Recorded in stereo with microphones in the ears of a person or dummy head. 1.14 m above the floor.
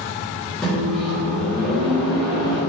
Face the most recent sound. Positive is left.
turn(degrees=0)  # may be behind; listen again after turning